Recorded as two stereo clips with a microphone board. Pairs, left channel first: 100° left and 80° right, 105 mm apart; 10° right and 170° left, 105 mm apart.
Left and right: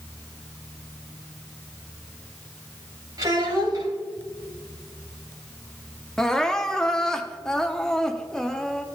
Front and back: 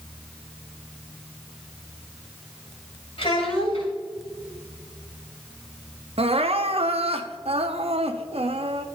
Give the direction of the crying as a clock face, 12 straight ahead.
6 o'clock.